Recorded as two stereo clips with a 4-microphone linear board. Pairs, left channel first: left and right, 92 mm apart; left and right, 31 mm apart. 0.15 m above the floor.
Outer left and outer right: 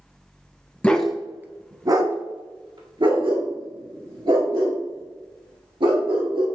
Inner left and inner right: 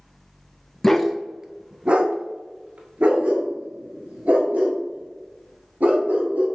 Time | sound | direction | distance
0.8 | a dog barking | 15° left (ahead or behind) | 0.5 m